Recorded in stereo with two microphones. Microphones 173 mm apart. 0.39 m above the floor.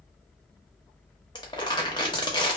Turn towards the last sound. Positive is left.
turn(degrees=25)  # may be behind; listen again after turning